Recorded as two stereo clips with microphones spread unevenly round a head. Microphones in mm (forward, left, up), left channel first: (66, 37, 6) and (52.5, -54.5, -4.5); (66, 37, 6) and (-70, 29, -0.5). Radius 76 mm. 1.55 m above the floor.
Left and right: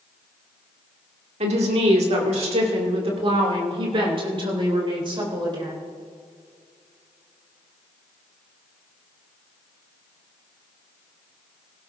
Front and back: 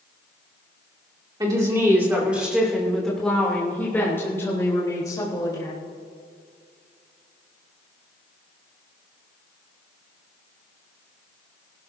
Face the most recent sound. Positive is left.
turn(degrees=-65)